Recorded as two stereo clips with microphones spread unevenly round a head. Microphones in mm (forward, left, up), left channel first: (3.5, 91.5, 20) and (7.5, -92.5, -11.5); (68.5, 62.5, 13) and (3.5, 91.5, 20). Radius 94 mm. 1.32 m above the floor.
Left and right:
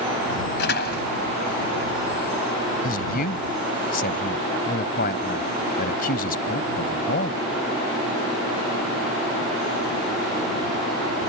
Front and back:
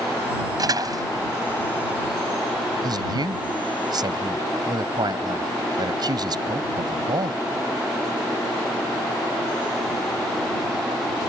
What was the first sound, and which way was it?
A door slam, 130° left.